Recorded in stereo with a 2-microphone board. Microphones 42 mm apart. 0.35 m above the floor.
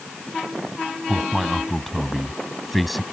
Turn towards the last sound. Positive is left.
turn(degrees=0)  # may be behind; listen again after turning